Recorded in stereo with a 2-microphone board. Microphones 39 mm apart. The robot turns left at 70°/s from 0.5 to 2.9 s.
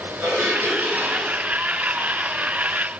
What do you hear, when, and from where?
0.2 s dishes clattering: 100° right, 7 m; by 1.4 s 165° right, 7 m